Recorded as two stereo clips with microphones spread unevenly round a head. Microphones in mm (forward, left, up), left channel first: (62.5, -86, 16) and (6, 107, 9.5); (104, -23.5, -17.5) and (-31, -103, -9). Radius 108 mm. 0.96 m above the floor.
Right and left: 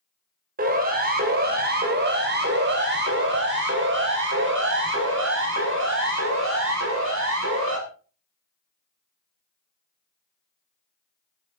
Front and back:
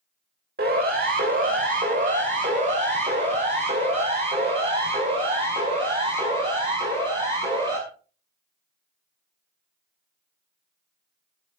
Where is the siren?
160° left, 3.5 m; by 7.8 s 140° left, 7 m.